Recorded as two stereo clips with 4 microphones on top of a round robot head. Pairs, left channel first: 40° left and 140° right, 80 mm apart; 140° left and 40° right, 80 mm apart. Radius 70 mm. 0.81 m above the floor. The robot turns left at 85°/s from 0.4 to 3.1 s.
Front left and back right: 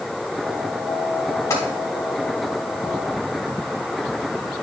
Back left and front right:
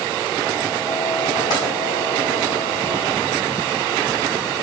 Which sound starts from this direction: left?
Tapping, at 1.5 s.